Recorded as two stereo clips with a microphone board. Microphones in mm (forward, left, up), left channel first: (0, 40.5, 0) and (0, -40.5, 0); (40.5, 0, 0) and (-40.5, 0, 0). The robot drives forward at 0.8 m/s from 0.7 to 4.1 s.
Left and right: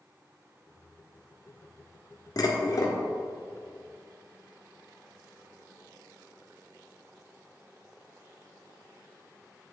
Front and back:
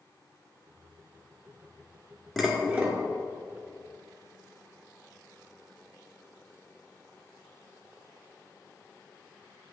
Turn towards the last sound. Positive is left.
turn(degrees=150)